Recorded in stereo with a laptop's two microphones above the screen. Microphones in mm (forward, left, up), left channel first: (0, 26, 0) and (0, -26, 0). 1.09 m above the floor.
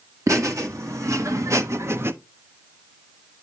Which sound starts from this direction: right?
Laughter, at 0.3 s.